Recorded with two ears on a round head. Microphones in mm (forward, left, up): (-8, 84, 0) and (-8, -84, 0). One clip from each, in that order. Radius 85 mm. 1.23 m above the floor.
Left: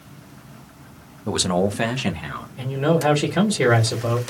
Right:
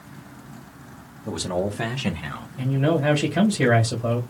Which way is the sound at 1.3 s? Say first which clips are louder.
Left 5 dB; 70° left (ahead or behind).